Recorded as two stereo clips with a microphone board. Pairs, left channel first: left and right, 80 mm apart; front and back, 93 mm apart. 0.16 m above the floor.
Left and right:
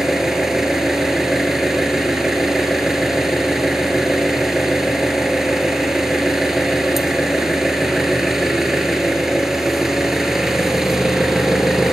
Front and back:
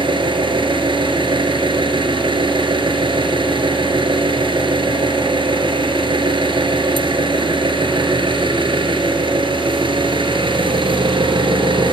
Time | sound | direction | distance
0.0 | an engine running | 175° right | 2 m